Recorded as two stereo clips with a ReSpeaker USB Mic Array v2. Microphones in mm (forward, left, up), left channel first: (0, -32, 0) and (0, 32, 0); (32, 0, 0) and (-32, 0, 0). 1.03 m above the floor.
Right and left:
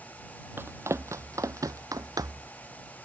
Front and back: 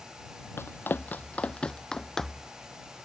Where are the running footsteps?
45° left; by 2.5 s 90° left.